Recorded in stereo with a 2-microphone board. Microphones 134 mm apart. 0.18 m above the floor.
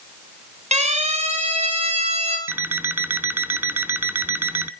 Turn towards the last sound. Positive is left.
turn(degrees=-15)  # may be behind; listen again after turning